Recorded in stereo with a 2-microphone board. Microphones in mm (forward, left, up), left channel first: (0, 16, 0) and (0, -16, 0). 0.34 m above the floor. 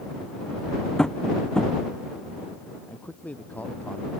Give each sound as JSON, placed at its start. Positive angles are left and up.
{"t": 1.0, "sound": "tapping", "side_deg": 25}
{"t": 2.9, "sound": "a man speaking", "side_deg": 50}